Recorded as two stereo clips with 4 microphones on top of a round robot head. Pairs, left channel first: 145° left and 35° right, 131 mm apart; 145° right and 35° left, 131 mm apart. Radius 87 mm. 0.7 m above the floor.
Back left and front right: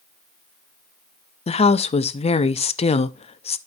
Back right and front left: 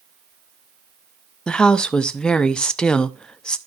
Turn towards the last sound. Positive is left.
turn(degrees=130)